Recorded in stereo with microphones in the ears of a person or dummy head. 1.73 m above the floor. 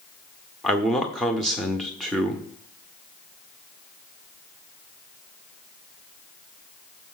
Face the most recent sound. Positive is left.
turn(degrees=5)  # may be behind; listen again after turning